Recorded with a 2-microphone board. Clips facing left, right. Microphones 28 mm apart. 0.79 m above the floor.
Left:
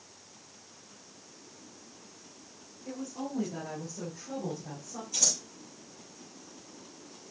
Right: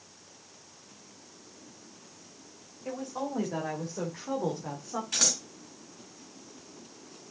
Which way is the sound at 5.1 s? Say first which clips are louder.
Right 2 dB; 85° right.